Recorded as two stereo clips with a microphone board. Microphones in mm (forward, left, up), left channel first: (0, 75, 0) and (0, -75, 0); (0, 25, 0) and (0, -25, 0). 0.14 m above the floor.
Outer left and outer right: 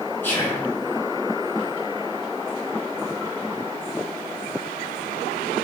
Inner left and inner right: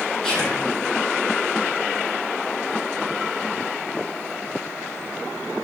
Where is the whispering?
15° left (ahead or behind), 1.7 m.